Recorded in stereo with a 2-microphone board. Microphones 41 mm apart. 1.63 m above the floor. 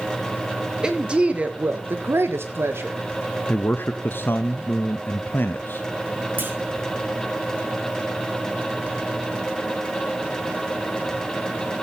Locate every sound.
0.8 s a woman speaking: 15° right (ahead or behind), 1.9 m; by 3.0 s 65° right (ahead or behind), 1.8 m
3.5 s a man speaking: 55° left (ahead or behind), 0.7 m
6.4 s a clunk: 50° right (ahead or behind), 2 m